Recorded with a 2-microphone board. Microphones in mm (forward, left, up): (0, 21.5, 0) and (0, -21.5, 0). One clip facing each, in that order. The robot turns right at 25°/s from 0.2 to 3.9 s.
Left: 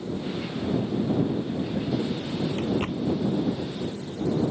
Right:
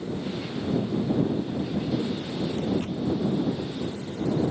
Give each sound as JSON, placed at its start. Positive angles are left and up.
{"t": 2.1, "sound": "a drawer", "side_deg": 65}